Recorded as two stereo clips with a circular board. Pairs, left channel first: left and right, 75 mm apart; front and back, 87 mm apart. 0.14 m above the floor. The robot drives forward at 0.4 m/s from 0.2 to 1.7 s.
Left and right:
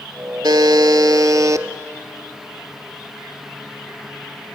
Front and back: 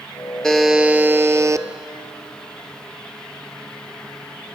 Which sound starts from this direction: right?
A buzzer, at 0.4 s.